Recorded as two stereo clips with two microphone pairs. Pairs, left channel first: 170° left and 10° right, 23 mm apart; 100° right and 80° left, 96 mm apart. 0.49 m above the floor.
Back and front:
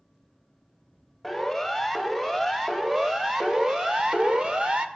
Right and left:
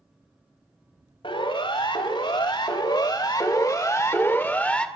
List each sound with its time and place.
1.2 s a siren: 95° right, 4 m; by 4.9 s 25° right, 2 m